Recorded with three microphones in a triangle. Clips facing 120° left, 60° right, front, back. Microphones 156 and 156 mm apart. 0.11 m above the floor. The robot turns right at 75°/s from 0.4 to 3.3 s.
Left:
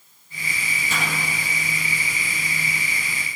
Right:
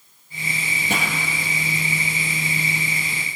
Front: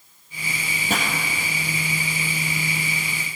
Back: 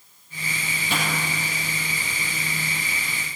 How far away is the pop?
About 3 m.